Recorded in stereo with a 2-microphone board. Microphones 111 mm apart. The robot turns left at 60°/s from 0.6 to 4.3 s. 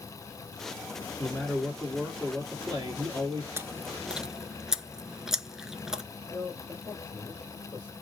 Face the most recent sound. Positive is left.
turn(degrees=15)  # may be behind; listen again after turning